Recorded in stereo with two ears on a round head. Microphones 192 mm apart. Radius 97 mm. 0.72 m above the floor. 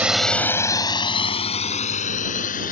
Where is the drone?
5° right (ahead or behind); by 2.7 s 35° left (ahead or behind).